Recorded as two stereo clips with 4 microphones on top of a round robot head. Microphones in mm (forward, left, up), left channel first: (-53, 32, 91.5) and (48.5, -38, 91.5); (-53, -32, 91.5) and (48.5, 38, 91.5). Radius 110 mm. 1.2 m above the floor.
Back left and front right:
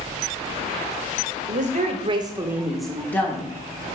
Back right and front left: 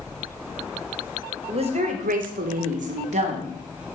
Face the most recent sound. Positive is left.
turn(degrees=75)